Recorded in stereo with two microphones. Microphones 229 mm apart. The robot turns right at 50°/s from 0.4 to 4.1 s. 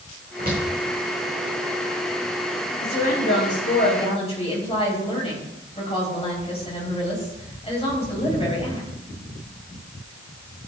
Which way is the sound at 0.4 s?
40° right (ahead or behind).